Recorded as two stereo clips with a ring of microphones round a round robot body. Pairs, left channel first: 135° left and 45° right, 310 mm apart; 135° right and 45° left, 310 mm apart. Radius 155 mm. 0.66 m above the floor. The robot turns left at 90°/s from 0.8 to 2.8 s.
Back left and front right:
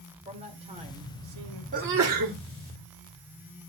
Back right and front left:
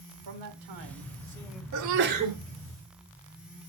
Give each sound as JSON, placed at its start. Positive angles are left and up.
{"t": 0.2, "sound": "a man speaking", "azimuth_deg": 25, "distance_m": 1.9}
{"t": 1.7, "sound": "a sneeze", "azimuth_deg": 20, "distance_m": 1.7}